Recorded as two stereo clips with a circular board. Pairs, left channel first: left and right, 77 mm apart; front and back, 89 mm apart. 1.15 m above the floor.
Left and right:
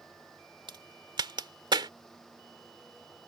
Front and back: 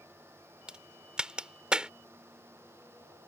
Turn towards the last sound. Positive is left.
turn(degrees=-100)